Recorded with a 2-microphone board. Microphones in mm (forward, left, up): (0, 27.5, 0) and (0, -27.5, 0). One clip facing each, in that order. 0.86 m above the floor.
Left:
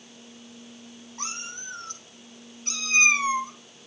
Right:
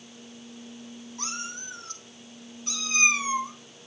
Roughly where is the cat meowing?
Left.